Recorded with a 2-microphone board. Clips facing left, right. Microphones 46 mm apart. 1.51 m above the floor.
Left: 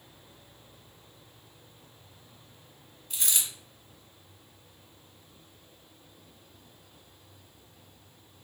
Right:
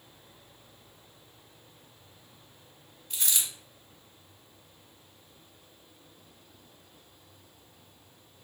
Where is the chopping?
I don't hear chopping.